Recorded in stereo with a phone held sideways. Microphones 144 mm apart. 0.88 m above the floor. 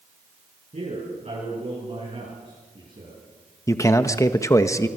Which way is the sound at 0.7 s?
55° right (ahead or behind).